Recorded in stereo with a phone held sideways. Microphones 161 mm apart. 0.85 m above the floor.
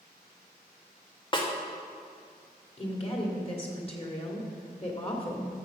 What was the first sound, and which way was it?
A snare drum, 30° left (ahead or behind).